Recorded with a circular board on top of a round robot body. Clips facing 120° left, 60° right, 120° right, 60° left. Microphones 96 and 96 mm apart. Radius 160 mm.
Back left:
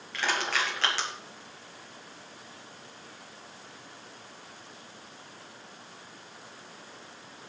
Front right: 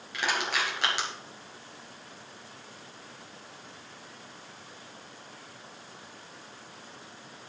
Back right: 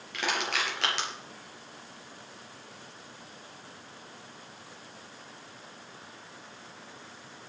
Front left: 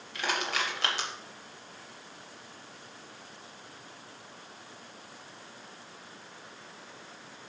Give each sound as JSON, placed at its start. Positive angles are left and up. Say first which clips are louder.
{"t": 0.1, "sound": "crushing", "louder": "even, back right 1 dB", "azimuth_deg": -135, "distance_m": 4.5}